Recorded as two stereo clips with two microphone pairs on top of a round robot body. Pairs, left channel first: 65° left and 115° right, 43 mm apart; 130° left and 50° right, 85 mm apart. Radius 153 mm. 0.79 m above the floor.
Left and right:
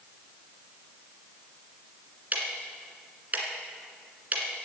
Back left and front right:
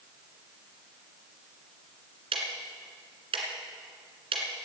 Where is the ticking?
65° right, 1.7 m.